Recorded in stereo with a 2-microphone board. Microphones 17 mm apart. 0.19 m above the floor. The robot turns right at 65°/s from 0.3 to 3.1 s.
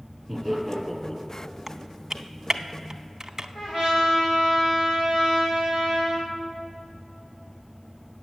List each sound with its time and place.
0.3 s laughter: 25° right (ahead or behind), 3.5 m; by 1.2 s 30° left (ahead or behind), 3.5 m
1.7 s typing on a keyboard: 15° right (ahead or behind), 0.6 m; by 3.5 s 35° right (ahead or behind), 0.6 m
3.5 s a trumpet: 80° left, 4 m